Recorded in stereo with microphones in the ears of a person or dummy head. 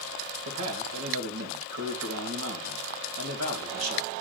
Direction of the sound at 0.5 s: 90° right.